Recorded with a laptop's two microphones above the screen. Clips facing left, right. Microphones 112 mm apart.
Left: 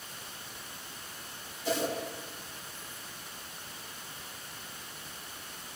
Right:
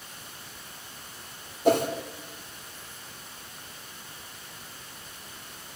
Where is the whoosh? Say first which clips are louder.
Right 9 dB; 60° right (ahead or behind), 2.5 m.